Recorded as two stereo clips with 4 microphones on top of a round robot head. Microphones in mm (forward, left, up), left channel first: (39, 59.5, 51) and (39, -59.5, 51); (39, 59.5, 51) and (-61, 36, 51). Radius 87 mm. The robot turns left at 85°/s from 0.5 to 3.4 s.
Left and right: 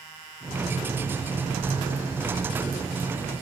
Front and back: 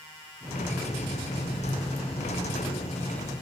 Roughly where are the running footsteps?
No running footsteps in this recording.